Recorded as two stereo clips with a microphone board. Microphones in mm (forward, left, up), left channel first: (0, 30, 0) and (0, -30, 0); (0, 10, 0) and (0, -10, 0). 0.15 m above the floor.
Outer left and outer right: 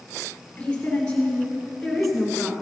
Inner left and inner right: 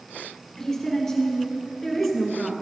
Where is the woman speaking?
20° left (ahead or behind), 2.5 m; by 2.5 s 5° right (ahead or behind), 1.6 m.